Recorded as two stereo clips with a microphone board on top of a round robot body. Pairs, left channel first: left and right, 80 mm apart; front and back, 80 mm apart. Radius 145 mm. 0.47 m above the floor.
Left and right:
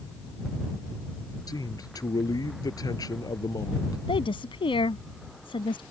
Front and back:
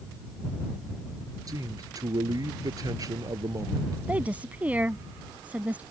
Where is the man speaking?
135° left.